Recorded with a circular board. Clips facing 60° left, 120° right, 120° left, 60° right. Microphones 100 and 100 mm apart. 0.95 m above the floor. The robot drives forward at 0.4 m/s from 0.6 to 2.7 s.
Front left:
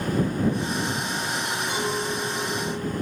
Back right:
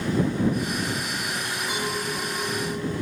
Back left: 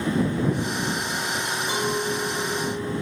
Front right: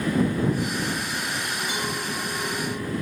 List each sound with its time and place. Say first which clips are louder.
1.7 s a clink: front left 1 dB, back left 4 dB; 155° left, 3 m; by 2.9 s 160° left, 3.5 m